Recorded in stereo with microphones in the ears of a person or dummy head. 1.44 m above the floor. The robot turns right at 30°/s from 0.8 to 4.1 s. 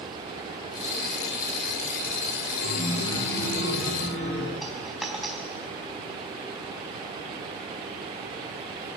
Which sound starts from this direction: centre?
A dropped coin, at 4.6 s.